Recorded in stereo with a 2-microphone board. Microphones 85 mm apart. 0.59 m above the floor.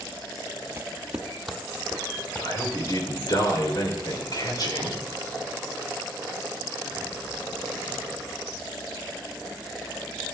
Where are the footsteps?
30° right (ahead or behind), 0.6 m; by 3.4 s 15° left (ahead or behind), 3.5 m.